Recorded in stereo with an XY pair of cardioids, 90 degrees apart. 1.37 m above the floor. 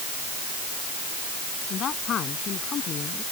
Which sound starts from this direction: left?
A man speaking, at 1.7 s.